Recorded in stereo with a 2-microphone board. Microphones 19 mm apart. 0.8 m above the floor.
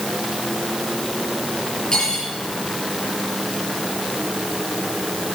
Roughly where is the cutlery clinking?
Left.